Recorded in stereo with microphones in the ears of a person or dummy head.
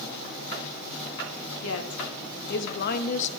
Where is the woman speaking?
80° left, 1.6 m; by 3.3 s 35° left (ahead or behind), 0.7 m.